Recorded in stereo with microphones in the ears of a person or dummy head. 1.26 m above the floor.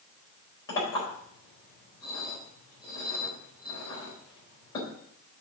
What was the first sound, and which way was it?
A clink, 20° left (ahead or behind).